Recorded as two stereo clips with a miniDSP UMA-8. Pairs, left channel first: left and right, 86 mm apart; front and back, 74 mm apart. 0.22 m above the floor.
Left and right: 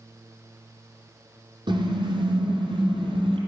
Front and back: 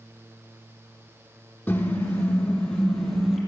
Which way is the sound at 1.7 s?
70° right.